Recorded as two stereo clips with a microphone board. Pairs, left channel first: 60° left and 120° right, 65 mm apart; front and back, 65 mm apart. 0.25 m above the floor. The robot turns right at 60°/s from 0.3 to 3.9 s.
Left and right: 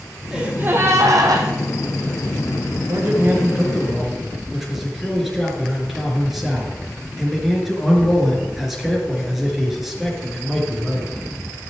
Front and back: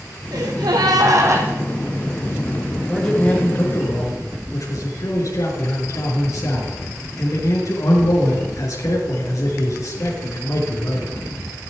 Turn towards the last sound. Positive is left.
turn(degrees=-30)